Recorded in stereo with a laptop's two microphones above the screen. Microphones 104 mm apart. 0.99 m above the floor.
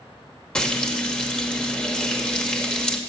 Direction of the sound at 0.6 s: 10° left (ahead or behind).